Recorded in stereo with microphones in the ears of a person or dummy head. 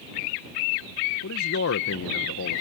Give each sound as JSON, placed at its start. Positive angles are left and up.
{"t": 1.2, "sound": "a man speaking", "side_deg": 70}